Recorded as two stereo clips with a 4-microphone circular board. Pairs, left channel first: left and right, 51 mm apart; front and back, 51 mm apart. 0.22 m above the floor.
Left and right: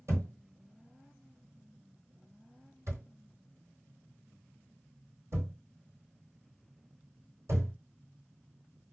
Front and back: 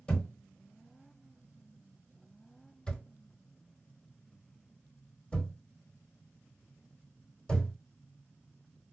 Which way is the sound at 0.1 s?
70° right.